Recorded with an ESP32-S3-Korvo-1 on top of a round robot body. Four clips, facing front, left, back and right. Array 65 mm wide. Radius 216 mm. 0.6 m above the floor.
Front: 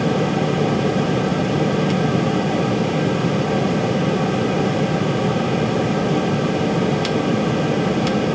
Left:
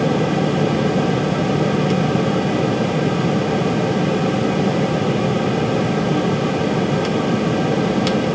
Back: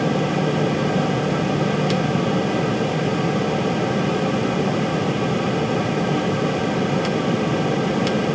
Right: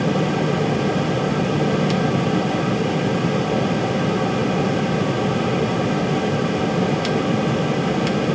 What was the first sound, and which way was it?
Only background noise.